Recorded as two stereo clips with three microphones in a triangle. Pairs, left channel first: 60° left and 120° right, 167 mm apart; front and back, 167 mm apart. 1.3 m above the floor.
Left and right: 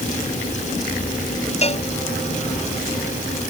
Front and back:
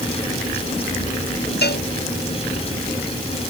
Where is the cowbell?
10° left.